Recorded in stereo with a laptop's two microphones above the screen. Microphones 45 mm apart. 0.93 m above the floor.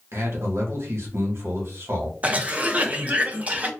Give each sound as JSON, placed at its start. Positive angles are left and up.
{"t": 0.1, "sound": "a man speaking", "side_deg": -75, "distance_m": 1.1}
{"t": 2.2, "sound": "a cough", "side_deg": -30, "distance_m": 0.6}